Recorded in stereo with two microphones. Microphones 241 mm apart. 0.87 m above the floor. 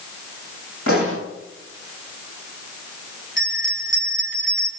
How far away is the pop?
About 10 m.